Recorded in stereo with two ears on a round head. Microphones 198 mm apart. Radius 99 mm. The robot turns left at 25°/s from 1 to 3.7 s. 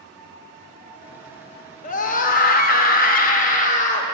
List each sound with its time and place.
1.8 s a scream: 115° left, 0.7 m; by 4.0 s 65° left, 0.7 m